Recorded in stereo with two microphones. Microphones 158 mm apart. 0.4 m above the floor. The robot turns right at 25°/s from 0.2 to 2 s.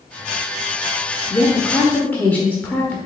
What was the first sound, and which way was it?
A woman speaking, 15° left (ahead or behind).